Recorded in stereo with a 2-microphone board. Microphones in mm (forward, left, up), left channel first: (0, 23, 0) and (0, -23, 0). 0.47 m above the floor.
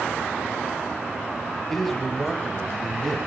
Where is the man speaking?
5° left (ahead or behind), 1.8 m.